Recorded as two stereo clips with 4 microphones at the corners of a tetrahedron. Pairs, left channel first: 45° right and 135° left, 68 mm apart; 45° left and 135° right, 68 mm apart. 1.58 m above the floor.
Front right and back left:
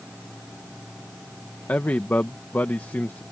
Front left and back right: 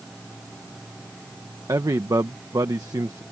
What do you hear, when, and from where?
1.7 s a man speaking: 105° right